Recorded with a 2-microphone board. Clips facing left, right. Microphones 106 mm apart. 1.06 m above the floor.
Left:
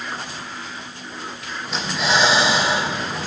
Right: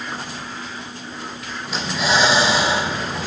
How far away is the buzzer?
No buzzer in this recording.